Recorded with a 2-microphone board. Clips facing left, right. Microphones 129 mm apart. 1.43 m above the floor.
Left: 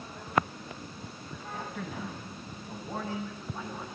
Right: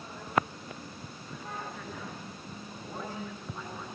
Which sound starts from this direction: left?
A man speaking, at 1.5 s.